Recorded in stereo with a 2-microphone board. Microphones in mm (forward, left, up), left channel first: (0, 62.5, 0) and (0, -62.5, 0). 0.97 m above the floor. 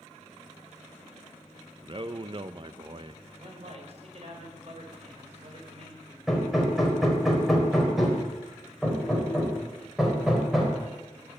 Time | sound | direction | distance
1.8 | a man speaking | 40° right (ahead or behind) | 0.5 m
3.4 | a man speaking | 50° right (ahead or behind) | 5 m
6.3 | hammering | centre (ahead or behind) | 3.5 m